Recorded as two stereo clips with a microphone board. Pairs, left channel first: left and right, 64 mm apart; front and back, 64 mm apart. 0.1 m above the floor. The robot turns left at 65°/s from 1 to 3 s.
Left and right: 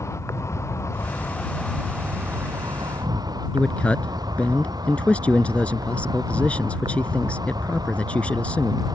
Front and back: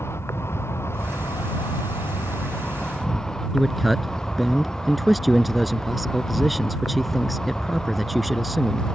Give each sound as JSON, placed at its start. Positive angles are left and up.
{"t": 0.0, "sound": "an insect", "azimuth_deg": 50}
{"t": 3.5, "sound": "a man speaking", "azimuth_deg": 90}